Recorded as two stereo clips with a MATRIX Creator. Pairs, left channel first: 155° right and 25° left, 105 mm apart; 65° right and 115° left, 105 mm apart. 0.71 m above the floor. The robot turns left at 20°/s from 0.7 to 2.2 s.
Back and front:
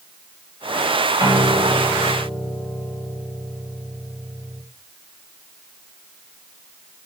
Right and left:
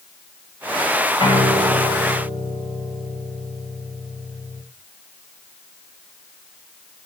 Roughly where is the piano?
Ahead right.